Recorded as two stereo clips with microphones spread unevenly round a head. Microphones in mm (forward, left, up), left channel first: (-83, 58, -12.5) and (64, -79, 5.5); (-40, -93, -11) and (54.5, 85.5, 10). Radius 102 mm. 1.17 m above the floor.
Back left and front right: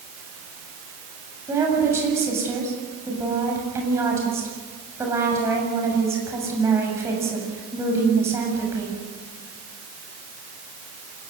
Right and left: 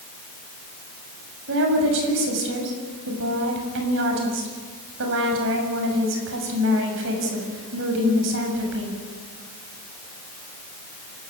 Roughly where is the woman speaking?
Ahead left.